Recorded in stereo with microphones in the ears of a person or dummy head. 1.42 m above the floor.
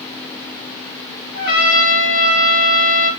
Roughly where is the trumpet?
Left.